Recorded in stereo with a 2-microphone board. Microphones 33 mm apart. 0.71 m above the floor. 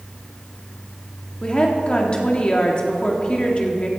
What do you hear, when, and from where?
1.4 s a woman speaking: 30° left (ahead or behind), 1.7 m